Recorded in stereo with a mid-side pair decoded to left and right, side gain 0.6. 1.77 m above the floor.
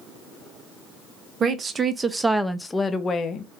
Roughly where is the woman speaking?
Ahead right.